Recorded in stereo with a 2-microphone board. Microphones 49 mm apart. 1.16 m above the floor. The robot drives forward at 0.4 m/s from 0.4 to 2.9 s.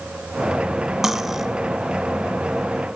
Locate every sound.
1.0 s cutlery clinking: 10° right (ahead or behind), 0.9 m; by 1.5 s 5° right (ahead or behind), 1.0 m